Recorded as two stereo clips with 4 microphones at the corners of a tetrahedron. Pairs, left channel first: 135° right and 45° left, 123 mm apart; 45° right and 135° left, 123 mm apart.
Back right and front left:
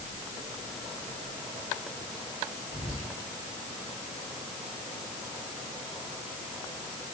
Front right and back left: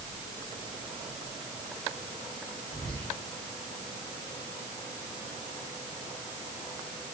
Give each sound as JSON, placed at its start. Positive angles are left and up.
{"t": 2.7, "sound": "whispering", "azimuth_deg": -95, "distance_m": 1.4}